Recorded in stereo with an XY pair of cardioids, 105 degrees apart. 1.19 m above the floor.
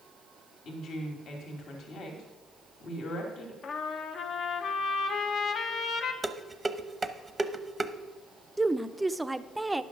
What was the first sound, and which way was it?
A woman speaking, 65° left.